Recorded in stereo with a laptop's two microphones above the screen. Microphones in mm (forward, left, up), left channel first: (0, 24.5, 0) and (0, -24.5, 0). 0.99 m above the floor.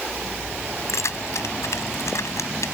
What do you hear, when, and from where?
0.9 s keys jangling: 75° left (ahead or behind)